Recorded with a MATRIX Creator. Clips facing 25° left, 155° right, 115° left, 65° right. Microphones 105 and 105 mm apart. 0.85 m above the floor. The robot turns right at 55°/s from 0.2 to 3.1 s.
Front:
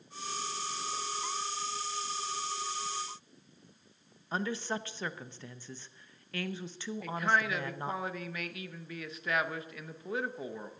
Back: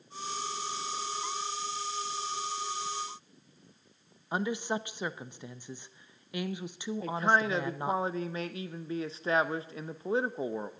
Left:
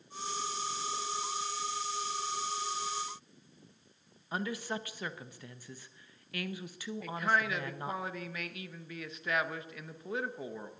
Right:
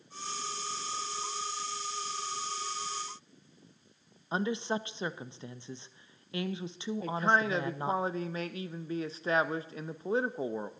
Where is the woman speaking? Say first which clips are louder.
Back 3 dB, right 5 dB; 100° right, 0.6 m.